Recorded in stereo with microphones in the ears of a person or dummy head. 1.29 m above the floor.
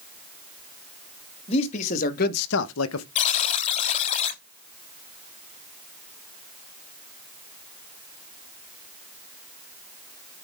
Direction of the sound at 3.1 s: 35° left (ahead or behind).